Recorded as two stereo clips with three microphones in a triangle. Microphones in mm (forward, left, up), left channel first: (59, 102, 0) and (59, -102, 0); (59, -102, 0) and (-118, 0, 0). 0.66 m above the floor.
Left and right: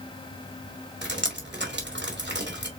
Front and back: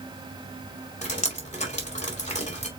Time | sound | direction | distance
1.0 | dripping | 80° right | 2.5 m